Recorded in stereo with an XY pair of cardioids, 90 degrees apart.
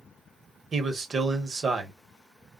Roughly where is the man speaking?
Ahead right.